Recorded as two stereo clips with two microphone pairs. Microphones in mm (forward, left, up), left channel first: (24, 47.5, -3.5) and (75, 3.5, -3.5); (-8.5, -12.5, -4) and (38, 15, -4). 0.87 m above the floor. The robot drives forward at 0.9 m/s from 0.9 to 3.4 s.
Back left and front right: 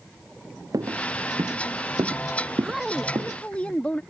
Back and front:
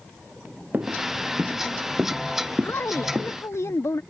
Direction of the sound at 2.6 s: 115° right.